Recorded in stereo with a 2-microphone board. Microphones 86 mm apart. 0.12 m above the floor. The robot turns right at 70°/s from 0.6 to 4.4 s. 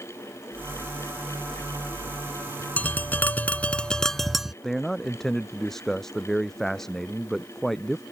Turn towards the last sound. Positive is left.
turn(degrees=5)  # may be behind; listen again after turning